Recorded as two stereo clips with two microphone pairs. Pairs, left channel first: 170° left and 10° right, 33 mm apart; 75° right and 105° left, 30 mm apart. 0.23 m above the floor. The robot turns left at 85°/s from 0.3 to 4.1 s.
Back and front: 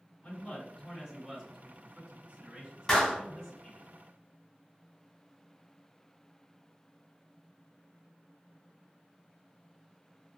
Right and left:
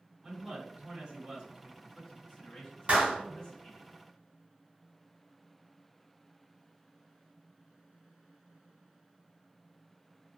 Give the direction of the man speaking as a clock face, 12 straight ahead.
6 o'clock.